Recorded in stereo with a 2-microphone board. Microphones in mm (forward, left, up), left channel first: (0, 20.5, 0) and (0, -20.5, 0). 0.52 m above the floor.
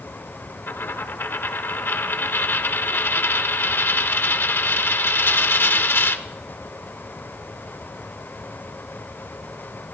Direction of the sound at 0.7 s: 60° left (ahead or behind).